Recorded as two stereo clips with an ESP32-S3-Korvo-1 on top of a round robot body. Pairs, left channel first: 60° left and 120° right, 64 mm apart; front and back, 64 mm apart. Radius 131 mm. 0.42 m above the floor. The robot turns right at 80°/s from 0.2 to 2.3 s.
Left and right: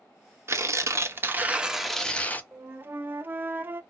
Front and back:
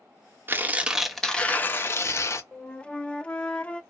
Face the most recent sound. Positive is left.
turn(degrees=-70)